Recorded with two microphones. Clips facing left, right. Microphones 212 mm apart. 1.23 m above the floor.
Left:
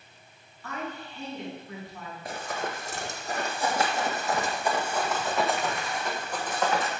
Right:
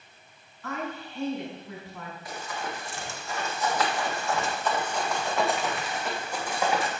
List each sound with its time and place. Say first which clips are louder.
0.6 s a woman speaking: right 2 dB; 85° right, 4.5 m
2.2 s running footsteps: left 3 dB; 55° left (ahead or behind), 2 m; by 6.9 s 15° right (ahead or behind), 3 m